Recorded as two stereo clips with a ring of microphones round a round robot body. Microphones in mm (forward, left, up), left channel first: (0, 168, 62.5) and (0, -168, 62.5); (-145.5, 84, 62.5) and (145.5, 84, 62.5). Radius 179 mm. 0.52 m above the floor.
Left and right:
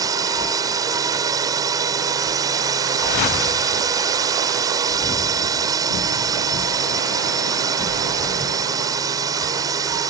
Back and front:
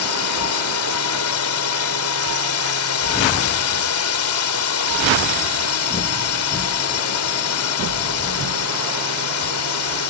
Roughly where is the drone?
Behind.